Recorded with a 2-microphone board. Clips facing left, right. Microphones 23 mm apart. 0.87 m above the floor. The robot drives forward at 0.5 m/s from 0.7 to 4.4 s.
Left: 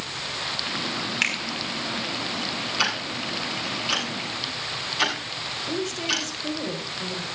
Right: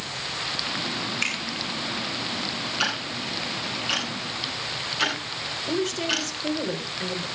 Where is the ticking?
80° left, 8.5 m; by 6.3 s 75° left (ahead or behind), 9 m.